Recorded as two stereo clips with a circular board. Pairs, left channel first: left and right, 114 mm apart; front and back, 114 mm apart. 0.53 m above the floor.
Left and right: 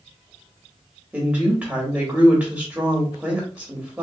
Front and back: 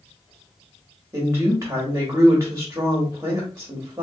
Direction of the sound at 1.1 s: 155° right.